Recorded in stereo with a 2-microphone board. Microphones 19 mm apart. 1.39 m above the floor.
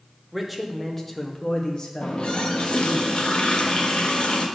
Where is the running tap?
55° left (ahead or behind), 0.9 m.